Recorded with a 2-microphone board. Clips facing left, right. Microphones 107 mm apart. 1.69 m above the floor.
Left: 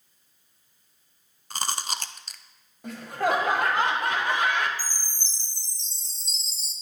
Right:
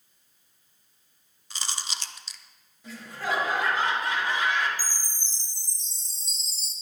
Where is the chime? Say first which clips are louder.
Even; 25° left (ahead or behind), 3 m.